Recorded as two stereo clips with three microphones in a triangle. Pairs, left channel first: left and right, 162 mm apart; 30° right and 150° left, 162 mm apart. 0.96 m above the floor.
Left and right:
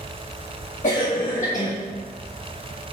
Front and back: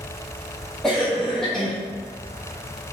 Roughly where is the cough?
Ahead left.